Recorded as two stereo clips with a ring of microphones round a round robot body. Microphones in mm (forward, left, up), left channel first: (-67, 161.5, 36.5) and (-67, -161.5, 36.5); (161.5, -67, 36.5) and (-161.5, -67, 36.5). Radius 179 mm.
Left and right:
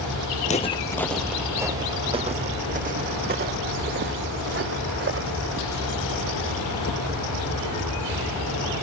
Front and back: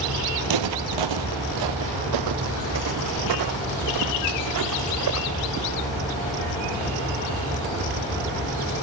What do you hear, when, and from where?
0.4 s footsteps: 155° left, 1.0 m; by 5.5 s 145° right, 3.5 m